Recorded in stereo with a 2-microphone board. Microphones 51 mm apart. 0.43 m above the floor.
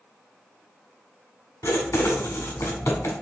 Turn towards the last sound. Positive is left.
turn(degrees=85)